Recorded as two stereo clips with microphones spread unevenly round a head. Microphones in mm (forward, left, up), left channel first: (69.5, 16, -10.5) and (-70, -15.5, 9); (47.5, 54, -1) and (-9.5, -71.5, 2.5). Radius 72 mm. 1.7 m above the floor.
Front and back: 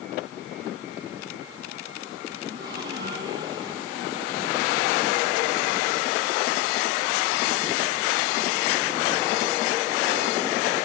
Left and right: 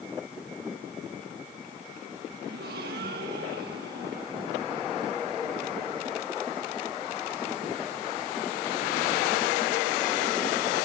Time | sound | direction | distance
2.5 | a gasp | 105° right | 2.5 m